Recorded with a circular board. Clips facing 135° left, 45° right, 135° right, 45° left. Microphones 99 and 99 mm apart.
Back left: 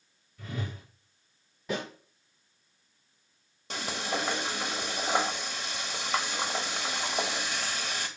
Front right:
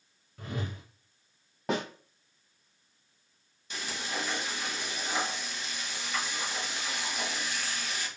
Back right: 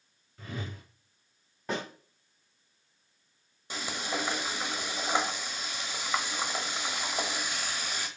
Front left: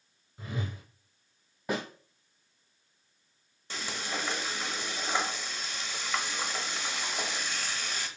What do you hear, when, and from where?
0.4 s a whoosh: 30° right, 2.5 m
1.7 s a snare drum: 40° right, 3.5 m
3.7 s frying: 150° left, 1.3 m